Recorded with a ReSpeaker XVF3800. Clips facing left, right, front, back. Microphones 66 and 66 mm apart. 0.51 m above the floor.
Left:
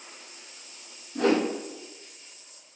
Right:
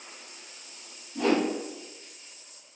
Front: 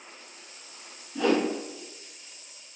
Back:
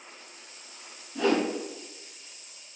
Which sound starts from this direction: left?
A whoosh, at 1.1 s.